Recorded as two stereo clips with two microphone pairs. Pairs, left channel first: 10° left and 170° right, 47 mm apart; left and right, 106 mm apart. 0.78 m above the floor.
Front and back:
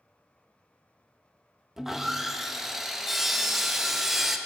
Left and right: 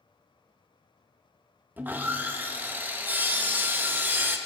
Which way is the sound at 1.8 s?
95° right.